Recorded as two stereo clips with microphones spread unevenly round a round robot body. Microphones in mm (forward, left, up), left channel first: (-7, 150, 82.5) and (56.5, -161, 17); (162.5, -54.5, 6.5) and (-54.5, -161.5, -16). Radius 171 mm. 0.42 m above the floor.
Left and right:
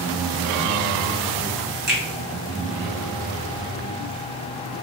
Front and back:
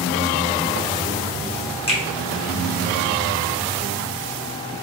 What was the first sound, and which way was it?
A finger snap, 40° right.